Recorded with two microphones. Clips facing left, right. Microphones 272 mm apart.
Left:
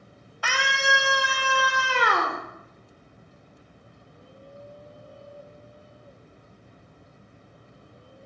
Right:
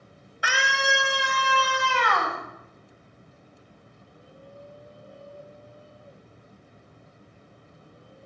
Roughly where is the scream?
Centre.